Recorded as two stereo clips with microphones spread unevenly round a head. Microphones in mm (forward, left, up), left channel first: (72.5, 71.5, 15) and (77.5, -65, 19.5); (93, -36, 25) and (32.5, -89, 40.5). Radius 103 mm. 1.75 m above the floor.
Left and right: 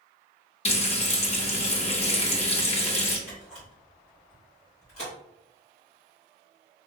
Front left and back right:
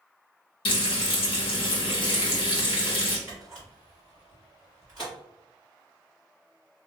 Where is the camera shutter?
130° left, 1.4 m.